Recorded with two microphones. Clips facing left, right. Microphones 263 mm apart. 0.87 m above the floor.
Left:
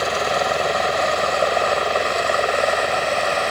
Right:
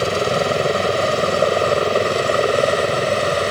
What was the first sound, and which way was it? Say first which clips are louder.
A helicopter: right 4 dB; 30° right (ahead or behind).